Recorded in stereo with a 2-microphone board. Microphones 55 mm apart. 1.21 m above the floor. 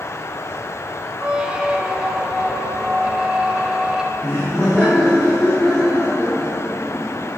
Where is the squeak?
15° right (ahead or behind), 1.2 m.